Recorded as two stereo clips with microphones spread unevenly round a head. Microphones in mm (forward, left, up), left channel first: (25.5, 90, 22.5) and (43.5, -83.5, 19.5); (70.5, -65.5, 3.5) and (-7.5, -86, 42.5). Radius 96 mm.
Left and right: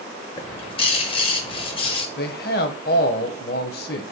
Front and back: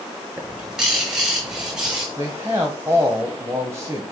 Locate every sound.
0.4 s a bird: 145° left, 0.9 m
2.2 s a man speaking: 135° left, 1.0 m